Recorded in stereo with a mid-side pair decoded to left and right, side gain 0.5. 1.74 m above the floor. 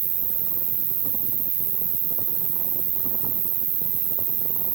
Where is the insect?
70° right.